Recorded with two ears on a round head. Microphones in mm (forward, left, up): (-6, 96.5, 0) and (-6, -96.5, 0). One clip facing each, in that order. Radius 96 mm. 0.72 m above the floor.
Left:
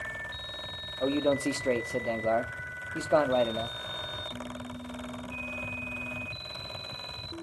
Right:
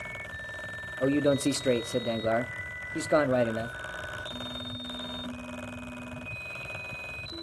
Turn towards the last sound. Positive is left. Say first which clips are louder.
# right 2 dB
turn(degrees=-20)  # may be behind; listen again after turning